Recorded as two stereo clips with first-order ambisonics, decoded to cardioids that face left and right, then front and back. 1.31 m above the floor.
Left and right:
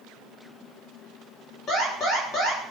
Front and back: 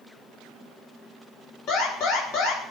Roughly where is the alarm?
Ahead left.